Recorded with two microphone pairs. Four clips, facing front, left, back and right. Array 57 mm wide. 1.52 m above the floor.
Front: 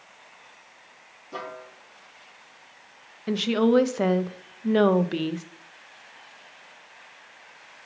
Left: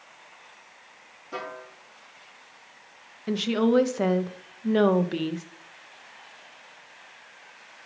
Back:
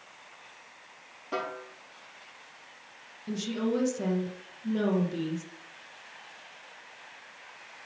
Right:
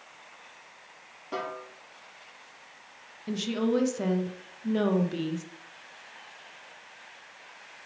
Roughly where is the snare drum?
Behind right.